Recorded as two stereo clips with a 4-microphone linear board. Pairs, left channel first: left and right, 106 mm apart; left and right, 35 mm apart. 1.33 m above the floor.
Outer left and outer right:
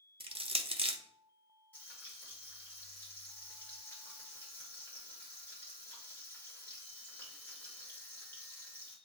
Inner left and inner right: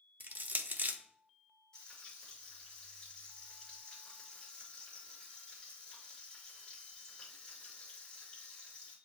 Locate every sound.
0.2 s crushing: 60° right (ahead or behind), 0.5 m
1.7 s frying: 15° left (ahead or behind), 1.9 m